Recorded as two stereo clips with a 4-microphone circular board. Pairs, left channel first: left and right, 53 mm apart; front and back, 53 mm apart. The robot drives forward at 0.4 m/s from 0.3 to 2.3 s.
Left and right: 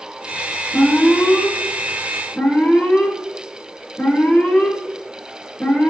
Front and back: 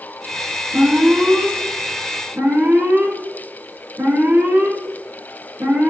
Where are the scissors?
I don't hear scissors.